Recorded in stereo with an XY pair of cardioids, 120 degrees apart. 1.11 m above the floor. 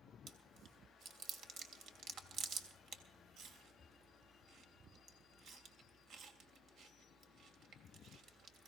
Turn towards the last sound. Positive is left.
turn(degrees=-60)